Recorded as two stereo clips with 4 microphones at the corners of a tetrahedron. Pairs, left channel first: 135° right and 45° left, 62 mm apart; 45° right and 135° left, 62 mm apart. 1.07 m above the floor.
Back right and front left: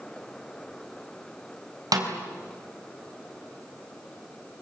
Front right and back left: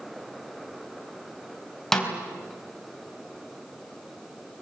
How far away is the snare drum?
About 4 m.